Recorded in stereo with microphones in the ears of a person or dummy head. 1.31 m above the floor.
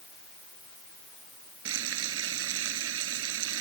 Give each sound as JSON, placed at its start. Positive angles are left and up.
{"t": 1.6, "sound": "frying", "side_deg": -85}